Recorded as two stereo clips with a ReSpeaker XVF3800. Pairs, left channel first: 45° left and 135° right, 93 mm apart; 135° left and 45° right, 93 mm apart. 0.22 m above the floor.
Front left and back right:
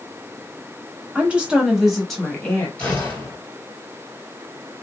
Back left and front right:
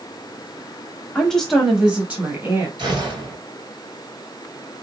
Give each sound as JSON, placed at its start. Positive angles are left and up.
{"t": 1.1, "sound": "a woman speaking", "azimuth_deg": -165, "distance_m": 1.0}
{"t": 2.8, "sound": "a gunshot", "azimuth_deg": -30, "distance_m": 2.5}